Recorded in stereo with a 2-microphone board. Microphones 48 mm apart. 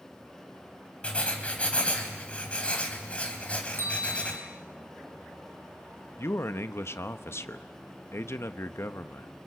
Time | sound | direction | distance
1.0 | writing | 25° left (ahead or behind) | 3.5 m
3.8 | a bell | 70° left (ahead or behind) | 3 m
6.2 | a man speaking | 65° left (ahead or behind) | 1.0 m